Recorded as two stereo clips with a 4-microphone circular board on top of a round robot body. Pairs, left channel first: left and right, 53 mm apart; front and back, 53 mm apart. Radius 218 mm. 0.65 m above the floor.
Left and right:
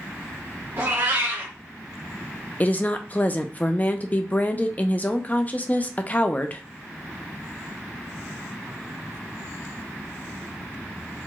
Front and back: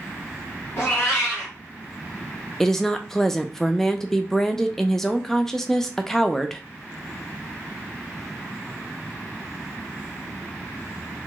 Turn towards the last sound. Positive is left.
turn(degrees=75)